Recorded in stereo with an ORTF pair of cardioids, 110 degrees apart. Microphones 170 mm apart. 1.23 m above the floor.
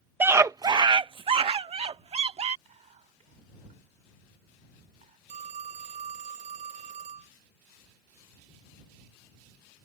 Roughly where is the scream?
Ahead.